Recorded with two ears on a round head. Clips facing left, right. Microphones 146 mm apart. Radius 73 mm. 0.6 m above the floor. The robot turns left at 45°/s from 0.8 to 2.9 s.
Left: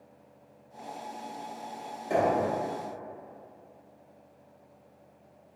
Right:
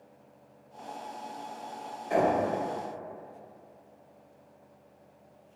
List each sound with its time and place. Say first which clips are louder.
2.1 s knocking: even; 45° left (ahead or behind), 1.3 m; by 2.4 s 35° left (ahead or behind), 1.3 m